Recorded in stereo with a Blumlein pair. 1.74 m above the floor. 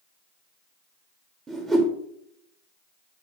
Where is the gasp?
No gasp in this recording.